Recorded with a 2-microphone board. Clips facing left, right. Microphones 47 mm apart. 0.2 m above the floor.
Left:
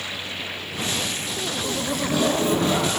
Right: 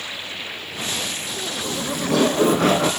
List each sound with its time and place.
1.6 s laughter: 80° right, 7.5 m